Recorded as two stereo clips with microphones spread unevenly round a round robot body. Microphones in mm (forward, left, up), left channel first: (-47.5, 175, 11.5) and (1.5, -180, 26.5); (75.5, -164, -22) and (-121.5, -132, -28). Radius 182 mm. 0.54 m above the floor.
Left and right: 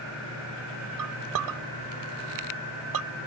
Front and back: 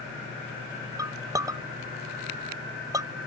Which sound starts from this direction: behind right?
A clink, at 1.0 s.